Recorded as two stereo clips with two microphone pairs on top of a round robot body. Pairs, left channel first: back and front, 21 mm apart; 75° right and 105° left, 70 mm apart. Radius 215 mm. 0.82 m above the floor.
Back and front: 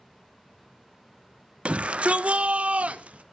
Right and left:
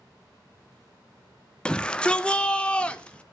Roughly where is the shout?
Ahead.